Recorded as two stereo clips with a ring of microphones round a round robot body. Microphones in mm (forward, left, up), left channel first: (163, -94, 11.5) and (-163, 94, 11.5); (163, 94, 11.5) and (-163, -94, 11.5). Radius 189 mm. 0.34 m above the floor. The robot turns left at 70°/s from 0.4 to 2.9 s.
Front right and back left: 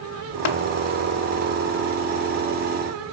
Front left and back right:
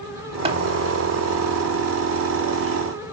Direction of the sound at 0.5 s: 75° right.